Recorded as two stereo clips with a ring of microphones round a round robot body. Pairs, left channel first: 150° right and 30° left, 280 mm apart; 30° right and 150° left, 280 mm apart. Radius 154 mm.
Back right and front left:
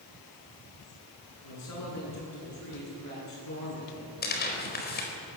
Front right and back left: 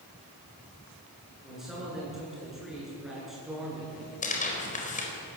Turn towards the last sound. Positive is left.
turn(degrees=-95)